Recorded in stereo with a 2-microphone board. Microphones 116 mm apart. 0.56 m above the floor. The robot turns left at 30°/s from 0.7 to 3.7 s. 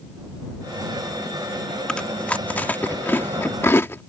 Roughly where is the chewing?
Centre.